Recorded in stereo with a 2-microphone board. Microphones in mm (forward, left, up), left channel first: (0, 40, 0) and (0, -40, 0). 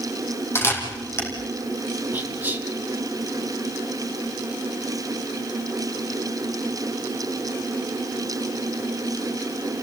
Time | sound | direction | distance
0.6 | a camera shutter | 30° left (ahead or behind) | 4.5 m
2.1 | whispering | 20° right (ahead or behind) | 3 m